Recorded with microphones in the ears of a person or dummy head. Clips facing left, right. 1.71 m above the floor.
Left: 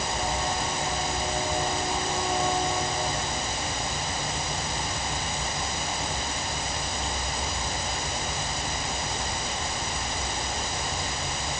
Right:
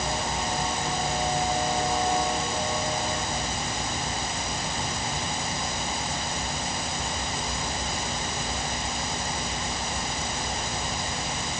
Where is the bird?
No bird in this recording.